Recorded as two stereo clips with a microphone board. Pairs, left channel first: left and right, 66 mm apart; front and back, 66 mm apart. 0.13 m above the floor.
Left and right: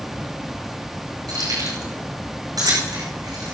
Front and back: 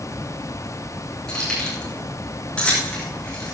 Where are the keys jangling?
80° right, 5.5 m; by 3.5 s 75° right, 6.5 m.